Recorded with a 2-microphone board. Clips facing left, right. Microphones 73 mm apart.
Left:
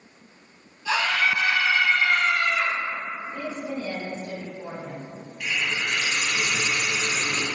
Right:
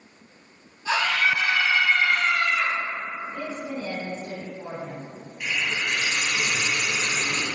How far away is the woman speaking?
About 1.3 m.